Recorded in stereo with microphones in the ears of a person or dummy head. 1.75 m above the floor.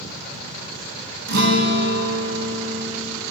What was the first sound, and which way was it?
A guitar, 60° right (ahead or behind).